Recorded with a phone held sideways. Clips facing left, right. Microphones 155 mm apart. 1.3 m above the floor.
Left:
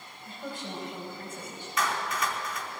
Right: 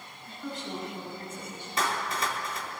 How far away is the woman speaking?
About 9 m.